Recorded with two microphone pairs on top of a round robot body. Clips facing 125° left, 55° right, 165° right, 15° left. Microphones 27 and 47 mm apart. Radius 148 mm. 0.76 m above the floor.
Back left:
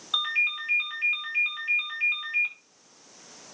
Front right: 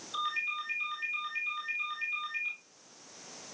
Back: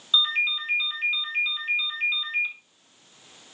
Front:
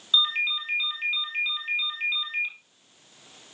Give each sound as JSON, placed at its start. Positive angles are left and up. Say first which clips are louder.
{"t": 0.1, "sound": "a ringtone", "louder": "back left 8 dB, back 1 dB", "azimuth_deg": 105, "distance_m": 4.0}